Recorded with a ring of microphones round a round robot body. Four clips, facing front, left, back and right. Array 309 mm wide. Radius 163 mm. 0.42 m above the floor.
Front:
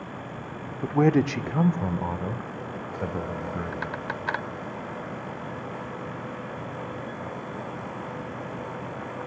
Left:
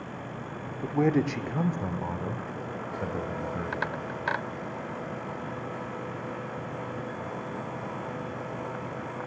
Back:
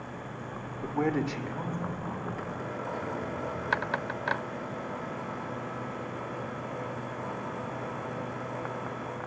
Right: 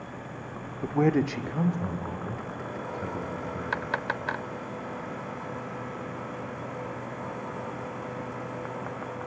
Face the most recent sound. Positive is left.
turn(degrees=30)